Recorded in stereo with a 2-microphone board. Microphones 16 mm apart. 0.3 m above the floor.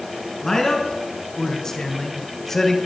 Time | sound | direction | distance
0.4 | a man speaking | 30° left (ahead or behind) | 4 m